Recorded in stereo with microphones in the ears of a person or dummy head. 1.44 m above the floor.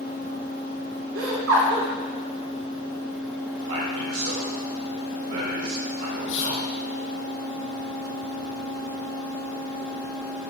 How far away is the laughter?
About 3 m.